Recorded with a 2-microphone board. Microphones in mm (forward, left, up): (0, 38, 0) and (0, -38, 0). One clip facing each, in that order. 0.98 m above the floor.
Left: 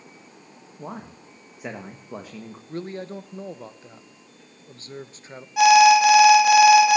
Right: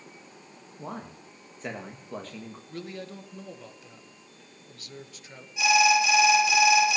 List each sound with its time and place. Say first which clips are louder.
0.8 s a man speaking: left 2 dB; 10° left (ahead or behind), 1.5 m
2.7 s a man speaking: left 7 dB; 35° left (ahead or behind), 1.0 m
5.6 s an alarm: left 9 dB; 60° left (ahead or behind), 2.5 m